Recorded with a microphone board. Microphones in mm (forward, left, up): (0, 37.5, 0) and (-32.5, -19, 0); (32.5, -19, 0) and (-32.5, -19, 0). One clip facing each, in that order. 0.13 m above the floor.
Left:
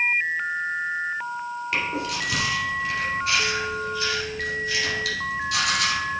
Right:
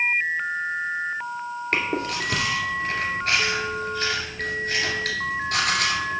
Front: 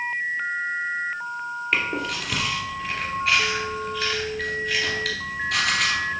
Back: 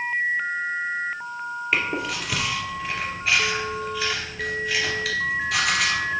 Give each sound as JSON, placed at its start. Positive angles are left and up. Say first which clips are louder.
{"t": 1.7, "sound": "chewing", "louder": "right 2 dB, even", "azimuth_deg": -95, "distance_m": 2.0}